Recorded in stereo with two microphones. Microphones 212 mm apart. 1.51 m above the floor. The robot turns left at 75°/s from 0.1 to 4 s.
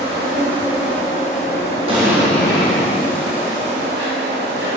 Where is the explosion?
150° right, 2.5 m; by 2.9 s 130° left, 2.5 m.